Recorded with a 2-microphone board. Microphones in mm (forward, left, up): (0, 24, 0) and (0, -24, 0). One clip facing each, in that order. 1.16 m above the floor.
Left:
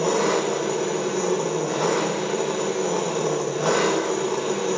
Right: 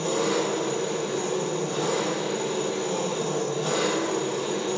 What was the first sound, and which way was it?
An engine running, 70° left (ahead or behind).